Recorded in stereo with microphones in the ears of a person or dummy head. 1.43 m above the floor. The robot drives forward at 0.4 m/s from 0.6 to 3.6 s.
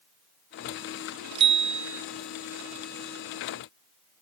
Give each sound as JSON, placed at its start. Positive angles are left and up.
{"t": 1.4, "sound": "a bicycle bell", "side_deg": -35}